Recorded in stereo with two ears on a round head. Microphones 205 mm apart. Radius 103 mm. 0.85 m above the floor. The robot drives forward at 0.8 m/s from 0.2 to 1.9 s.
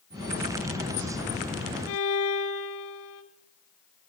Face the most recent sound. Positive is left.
turn(degrees=65)  # may be behind; listen again after turning